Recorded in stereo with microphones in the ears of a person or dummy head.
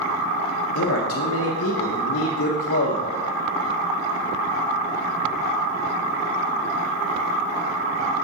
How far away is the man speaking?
About 0.8 m.